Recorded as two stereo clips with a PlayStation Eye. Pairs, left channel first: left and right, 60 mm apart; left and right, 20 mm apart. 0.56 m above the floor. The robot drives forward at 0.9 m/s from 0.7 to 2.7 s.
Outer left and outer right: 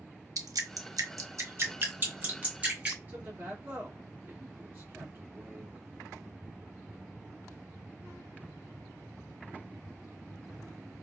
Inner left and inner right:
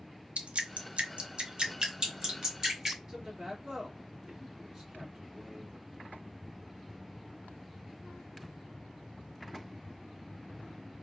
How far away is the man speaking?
About 1.4 m.